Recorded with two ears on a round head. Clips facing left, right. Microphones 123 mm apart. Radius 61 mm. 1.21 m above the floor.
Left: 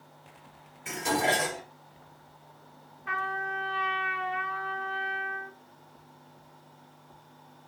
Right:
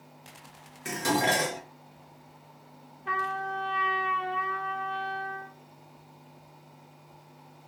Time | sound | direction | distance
0.8 | dishes clattering | 75° right (ahead or behind) | 1.5 m
3.1 | a trumpet | 35° right (ahead or behind) | 0.9 m